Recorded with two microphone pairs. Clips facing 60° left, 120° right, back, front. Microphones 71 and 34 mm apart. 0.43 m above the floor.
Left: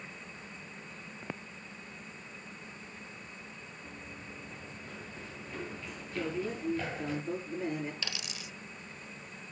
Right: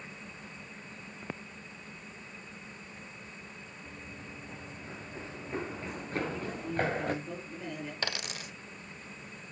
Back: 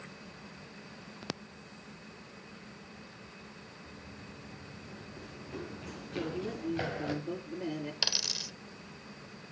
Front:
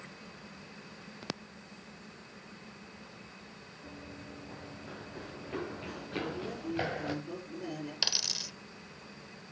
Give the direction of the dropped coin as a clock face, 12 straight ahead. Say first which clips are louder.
Right 5 dB, front 1 dB; 3 o'clock.